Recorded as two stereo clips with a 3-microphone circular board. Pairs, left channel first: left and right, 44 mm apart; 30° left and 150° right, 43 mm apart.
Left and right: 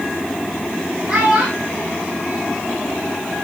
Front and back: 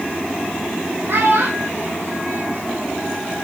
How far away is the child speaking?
About 4 m.